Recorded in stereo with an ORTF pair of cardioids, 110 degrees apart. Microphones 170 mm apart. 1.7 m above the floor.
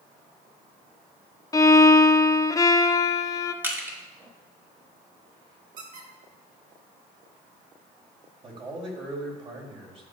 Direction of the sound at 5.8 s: 55° right.